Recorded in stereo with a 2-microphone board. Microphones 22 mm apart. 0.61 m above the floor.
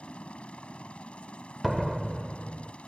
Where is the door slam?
5° right (ahead or behind).